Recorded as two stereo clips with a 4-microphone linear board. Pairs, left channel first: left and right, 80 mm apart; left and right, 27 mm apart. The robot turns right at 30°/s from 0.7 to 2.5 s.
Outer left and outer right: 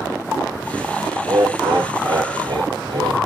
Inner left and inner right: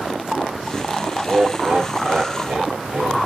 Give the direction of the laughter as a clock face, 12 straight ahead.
4 o'clock.